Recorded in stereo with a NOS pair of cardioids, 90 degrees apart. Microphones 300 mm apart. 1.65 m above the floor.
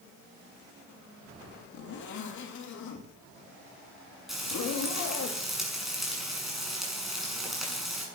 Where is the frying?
Straight ahead, 6.5 m.